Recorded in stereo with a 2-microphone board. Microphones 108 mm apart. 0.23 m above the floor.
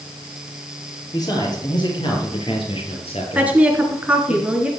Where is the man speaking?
35° left (ahead or behind), 5.5 m; by 4.3 s 70° left (ahead or behind), 5 m.